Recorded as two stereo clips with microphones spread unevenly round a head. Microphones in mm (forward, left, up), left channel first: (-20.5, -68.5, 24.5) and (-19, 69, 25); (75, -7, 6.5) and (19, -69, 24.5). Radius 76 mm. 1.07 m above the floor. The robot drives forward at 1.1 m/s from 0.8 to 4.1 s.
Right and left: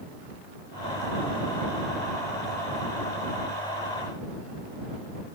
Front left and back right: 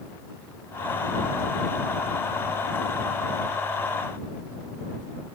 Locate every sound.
Only background noise.